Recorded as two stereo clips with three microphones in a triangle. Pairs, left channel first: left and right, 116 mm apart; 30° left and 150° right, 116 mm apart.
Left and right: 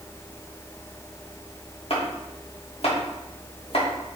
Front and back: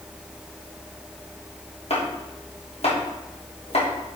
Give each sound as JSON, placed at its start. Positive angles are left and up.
{"t": 1.9, "sound": "chopping", "azimuth_deg": 60, "distance_m": 2.0}